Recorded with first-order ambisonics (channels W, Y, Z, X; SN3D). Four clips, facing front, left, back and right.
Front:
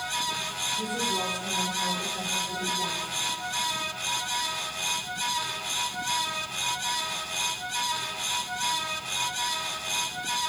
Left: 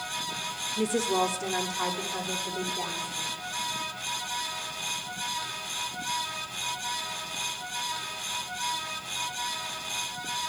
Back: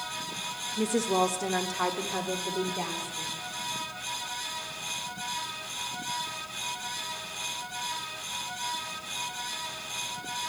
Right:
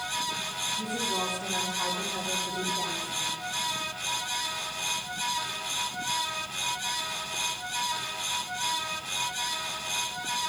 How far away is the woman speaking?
About 0.7 m.